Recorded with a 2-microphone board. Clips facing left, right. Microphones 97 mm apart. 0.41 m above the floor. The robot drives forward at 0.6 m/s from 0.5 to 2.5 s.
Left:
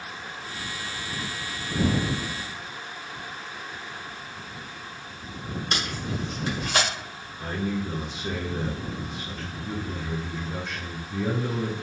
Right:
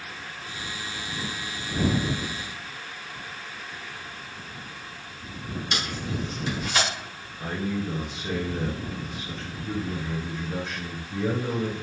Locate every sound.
5.7 s tape being pulled: 50° left (ahead or behind), 1.3 m
7.4 s a man speaking: centre (ahead or behind), 1.2 m